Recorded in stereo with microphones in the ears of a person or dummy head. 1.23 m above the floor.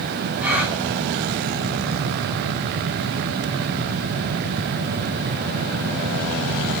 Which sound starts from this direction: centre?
A gasp, at 0.4 s.